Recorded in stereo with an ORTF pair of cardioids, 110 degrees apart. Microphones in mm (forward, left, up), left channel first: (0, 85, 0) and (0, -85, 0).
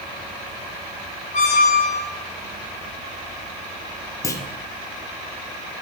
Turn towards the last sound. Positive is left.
turn(degrees=20)